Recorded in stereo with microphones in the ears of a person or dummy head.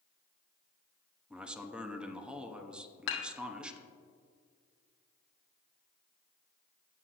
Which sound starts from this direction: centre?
A man speaking, at 1.3 s.